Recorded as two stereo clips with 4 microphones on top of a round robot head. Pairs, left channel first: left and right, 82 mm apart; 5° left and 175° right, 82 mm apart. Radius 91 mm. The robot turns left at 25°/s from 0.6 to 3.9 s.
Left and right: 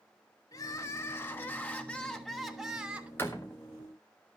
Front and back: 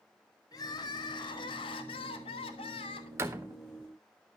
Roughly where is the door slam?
Behind left.